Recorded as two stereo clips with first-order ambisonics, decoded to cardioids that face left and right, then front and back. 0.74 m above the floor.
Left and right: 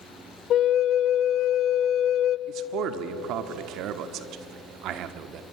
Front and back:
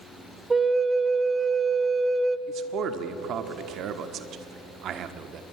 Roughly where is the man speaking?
Behind right.